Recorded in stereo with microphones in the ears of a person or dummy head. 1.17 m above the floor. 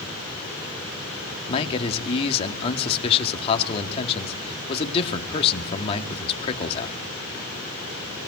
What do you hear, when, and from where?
1.5 s a man speaking: 30° left (ahead or behind), 2 m